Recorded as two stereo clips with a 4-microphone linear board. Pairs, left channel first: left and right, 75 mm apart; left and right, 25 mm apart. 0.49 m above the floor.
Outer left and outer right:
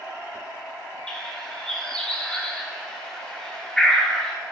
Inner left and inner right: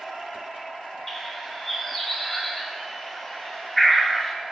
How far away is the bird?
About 0.8 m.